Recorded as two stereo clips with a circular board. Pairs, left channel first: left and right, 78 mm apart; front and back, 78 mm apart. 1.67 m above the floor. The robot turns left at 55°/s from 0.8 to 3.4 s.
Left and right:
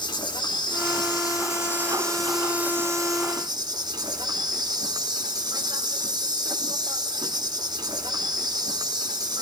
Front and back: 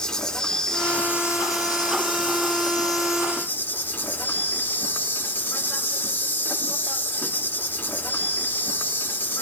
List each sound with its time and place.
0.0 s an insect: 80° left, 1.7 m; by 9.4 s 60° right, 1.7 m